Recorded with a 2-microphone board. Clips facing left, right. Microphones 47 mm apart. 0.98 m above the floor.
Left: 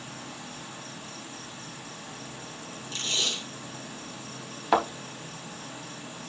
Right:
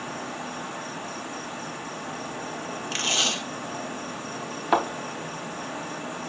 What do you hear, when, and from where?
0.0 s an insect: 45° right (ahead or behind), 0.8 m
2.9 s tape being pulled: 70° right (ahead or behind), 1.7 m
4.7 s a thud: centre (ahead or behind), 3.5 m